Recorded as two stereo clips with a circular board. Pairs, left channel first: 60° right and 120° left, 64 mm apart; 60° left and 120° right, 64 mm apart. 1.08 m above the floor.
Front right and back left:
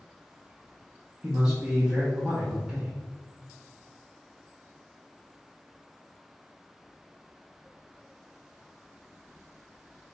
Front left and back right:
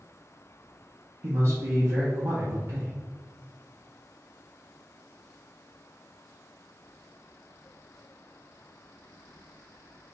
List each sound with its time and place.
1.2 s a man speaking: 165° right, 1.1 m